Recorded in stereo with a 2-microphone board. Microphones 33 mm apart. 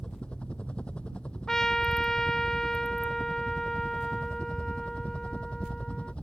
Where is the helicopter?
40° left (ahead or behind).